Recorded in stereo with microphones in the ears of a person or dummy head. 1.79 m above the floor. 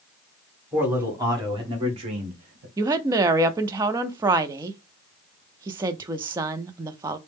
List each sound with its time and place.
0.7 s a man speaking: 10° right (ahead or behind), 1.5 m; by 2.7 s 50° right (ahead or behind), 1.4 m
2.8 s a woman speaking: 20° right (ahead or behind), 0.5 m